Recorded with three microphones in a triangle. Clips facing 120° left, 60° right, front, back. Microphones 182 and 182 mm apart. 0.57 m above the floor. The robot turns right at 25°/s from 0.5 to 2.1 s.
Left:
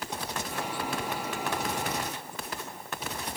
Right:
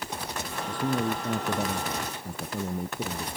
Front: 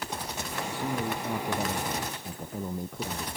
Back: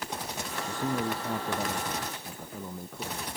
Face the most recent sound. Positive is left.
turn(degrees=-70)